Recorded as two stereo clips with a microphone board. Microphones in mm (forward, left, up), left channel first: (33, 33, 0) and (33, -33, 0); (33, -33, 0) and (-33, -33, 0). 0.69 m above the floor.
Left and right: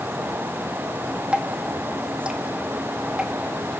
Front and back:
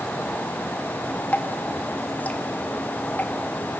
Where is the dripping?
30° right, 1.2 m.